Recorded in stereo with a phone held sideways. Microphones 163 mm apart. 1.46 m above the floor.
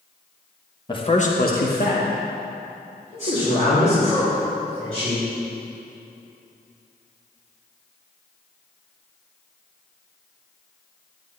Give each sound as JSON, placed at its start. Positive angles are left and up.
{"t": 0.9, "sound": "a man speaking", "side_deg": 30, "distance_m": 1.3}